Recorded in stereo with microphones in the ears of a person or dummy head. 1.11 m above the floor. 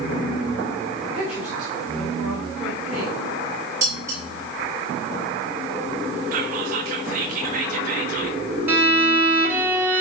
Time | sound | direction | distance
1.0 | a woman speaking | 10° right (ahead or behind) | 4 m
3.8 | dishes clattering | 15° right (ahead or behind) | 3.5 m
6.3 | whispering | 50° right (ahead or behind) | 1.2 m
8.7 | a violin | 15° right (ahead or behind) | 1.5 m